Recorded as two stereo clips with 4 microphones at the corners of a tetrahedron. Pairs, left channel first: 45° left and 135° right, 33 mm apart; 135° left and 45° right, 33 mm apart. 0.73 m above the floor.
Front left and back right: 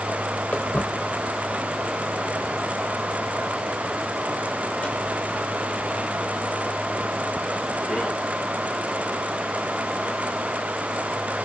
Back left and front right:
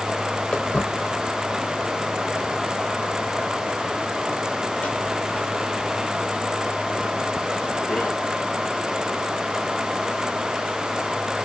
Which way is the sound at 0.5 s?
80° left.